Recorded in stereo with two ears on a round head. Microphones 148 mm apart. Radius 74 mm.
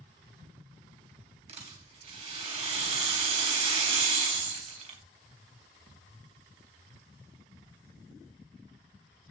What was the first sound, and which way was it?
A rattle, 40° right (ahead or behind).